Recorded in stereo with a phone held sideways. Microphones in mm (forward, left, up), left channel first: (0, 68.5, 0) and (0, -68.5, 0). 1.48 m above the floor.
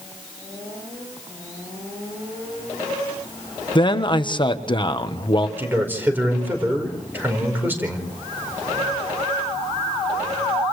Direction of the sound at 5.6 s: 15° right (ahead or behind).